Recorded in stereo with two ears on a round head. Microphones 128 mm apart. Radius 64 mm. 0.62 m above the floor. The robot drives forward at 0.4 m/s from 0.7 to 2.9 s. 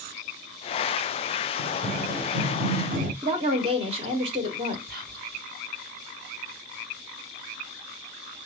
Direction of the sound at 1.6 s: 65° right (ahead or behind).